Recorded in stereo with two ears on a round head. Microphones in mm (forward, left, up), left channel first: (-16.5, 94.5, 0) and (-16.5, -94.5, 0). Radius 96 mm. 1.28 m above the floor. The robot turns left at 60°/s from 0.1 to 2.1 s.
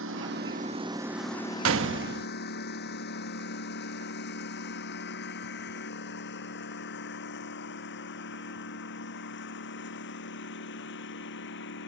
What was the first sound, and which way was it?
A lawn mower, 70° right (ahead or behind).